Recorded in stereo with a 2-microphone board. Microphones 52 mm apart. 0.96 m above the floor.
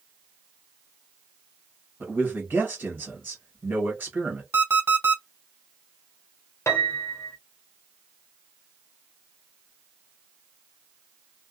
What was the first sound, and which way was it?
A man speaking, 40° right (ahead or behind).